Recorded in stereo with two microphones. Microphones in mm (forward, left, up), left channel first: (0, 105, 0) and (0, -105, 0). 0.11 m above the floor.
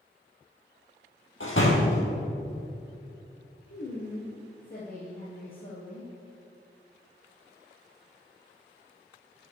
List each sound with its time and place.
1.4 s a door slam: 70° left (ahead or behind), 2.5 m
3.7 s a woman speaking: 45° left (ahead or behind), 2 m